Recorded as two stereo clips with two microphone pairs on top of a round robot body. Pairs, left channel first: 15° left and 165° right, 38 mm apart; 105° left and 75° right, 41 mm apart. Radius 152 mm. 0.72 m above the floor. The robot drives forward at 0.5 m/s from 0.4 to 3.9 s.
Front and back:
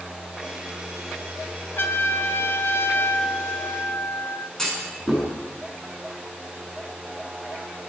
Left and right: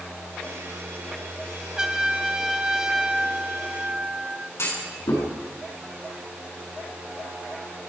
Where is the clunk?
95° left, 7 m.